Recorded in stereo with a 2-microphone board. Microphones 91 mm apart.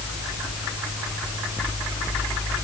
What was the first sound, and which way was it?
Only background noise.